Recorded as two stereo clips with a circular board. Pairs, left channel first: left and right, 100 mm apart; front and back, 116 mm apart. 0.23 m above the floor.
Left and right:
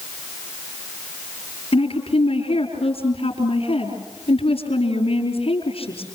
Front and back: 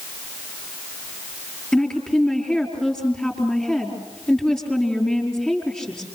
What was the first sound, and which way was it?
A woman speaking, 85° left.